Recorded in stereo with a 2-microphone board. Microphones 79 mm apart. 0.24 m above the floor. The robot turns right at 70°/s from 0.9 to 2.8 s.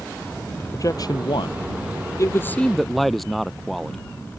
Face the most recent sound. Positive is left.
turn(degrees=180)